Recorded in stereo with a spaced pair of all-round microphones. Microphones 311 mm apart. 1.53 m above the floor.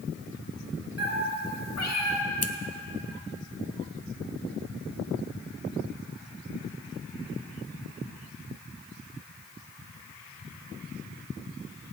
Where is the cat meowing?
50° left (ahead or behind), 1.8 m; by 2.2 s 55° left (ahead or behind), 1.6 m.